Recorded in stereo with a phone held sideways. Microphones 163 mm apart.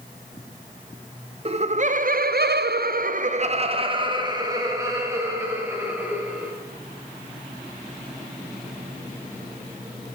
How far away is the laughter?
About 0.7 m.